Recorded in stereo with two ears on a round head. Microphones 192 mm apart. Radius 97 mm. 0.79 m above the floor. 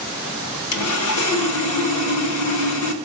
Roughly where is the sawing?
Left.